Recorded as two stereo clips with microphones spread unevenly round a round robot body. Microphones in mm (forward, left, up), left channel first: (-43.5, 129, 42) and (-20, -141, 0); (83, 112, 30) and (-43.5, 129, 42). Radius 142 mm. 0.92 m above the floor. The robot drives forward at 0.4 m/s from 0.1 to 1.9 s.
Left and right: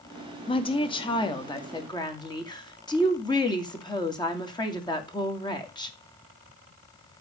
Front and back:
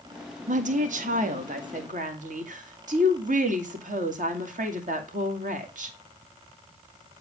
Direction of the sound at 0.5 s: 170° left.